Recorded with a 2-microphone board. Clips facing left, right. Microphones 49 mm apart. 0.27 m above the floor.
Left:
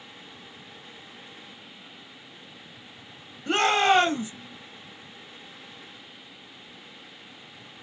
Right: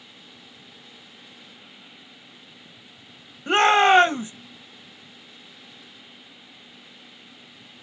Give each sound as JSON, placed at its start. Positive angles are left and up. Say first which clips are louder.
{"t": 3.5, "sound": "a shout", "louder": "right 5 dB", "side_deg": -30, "distance_m": 1.2}